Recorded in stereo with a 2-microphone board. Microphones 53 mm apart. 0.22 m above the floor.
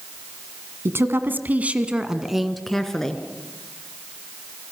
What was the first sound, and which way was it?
A woman speaking, 55° right (ahead or behind).